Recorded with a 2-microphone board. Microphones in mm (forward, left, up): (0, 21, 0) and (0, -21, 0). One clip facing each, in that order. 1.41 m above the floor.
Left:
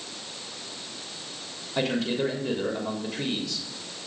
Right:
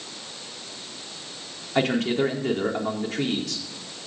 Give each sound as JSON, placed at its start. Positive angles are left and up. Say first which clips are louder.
{"t": 1.8, "sound": "a man speaking", "louder": "right 4 dB", "side_deg": -55, "distance_m": 4.0}